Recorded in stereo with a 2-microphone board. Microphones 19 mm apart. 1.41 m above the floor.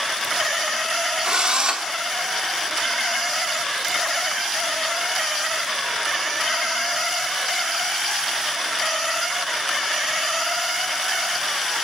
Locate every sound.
1.2 s a drill: 50° right (ahead or behind), 3 m